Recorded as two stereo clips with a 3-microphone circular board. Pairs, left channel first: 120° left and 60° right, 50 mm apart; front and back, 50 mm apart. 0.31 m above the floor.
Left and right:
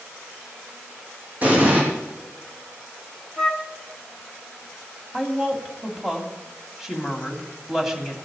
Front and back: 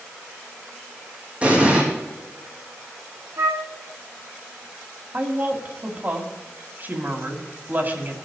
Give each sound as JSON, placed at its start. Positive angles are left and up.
{"t": 1.4, "sound": "an explosion", "azimuth_deg": -115, "distance_m": 5.0}
{"t": 3.4, "sound": "a flute", "azimuth_deg": -150, "distance_m": 0.9}
{"t": 5.1, "sound": "a woman speaking", "azimuth_deg": -140, "distance_m": 2.5}